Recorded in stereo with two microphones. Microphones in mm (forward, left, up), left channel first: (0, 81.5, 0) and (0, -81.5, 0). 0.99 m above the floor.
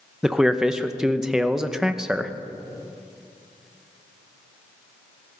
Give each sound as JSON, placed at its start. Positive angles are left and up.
{"t": 0.2, "sound": "a man speaking", "side_deg": -5, "distance_m": 0.8}